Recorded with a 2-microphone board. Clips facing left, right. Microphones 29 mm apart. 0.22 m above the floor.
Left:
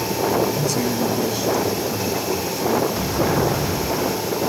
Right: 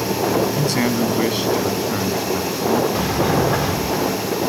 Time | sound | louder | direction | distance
0.6 | a man speaking | right 2 dB | 50° right (ahead or behind) | 1.4 m
2.9 | a sliding door | right 2 dB | 90° right | 5 m